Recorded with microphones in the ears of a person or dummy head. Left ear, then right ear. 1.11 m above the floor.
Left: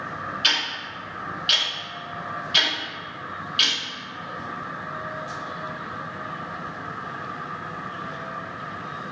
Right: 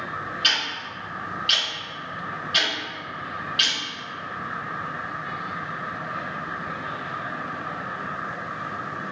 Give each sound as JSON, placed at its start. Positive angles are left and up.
{"t": 0.4, "sound": "ticking", "side_deg": 10, "distance_m": 1.3}